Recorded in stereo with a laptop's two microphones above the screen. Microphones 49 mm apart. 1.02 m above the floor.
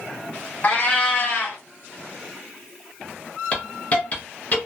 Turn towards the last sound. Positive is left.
turn(degrees=30)  # may be behind; listen again after turning